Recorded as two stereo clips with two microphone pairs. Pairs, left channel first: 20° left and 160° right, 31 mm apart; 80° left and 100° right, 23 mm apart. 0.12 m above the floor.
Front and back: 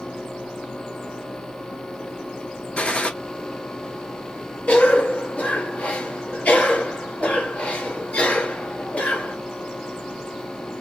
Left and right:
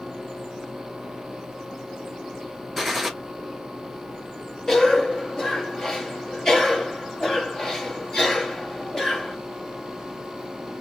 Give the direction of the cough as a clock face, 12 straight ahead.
11 o'clock.